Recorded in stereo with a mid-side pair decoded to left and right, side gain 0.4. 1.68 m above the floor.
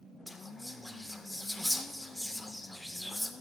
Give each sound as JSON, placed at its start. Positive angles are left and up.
{"t": 0.3, "sound": "whispering", "azimuth_deg": 10, "distance_m": 1.6}